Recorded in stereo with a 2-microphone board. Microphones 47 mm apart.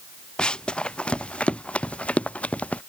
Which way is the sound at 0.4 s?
20° left (ahead or behind).